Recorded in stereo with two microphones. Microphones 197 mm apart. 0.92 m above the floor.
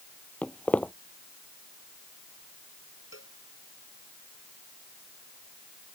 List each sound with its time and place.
0.4 s footsteps: 5° left (ahead or behind)
3.1 s a cowbell: 75° left (ahead or behind)